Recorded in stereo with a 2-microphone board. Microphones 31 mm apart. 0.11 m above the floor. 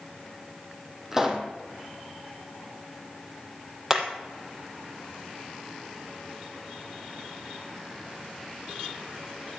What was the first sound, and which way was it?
A pop, 15° right (ahead or behind).